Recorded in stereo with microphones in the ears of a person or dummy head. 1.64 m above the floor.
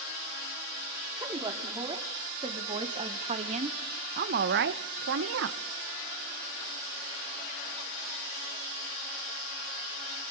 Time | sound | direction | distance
1.2 | a woman speaking | 25° right (ahead or behind) | 4.5 m